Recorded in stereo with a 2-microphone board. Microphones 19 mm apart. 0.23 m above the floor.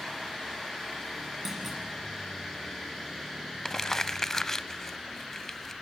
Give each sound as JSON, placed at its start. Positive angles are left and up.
{"t": 1.4, "sound": "a clunk", "side_deg": -20, "distance_m": 9.0}
{"t": 3.6, "sound": "crumpling", "side_deg": 20, "distance_m": 0.6}